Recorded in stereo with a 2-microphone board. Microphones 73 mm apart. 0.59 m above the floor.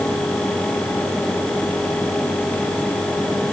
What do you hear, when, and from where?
Only background noise.